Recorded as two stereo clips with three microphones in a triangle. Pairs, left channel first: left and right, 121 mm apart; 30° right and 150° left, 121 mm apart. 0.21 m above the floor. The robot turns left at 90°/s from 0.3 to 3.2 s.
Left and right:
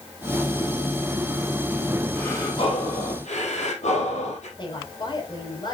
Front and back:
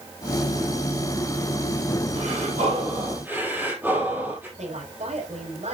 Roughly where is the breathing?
Behind.